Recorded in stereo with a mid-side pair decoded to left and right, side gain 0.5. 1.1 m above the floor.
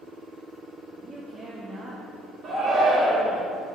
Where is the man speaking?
40° right, 1.4 m; by 2.0 s 10° right, 0.9 m.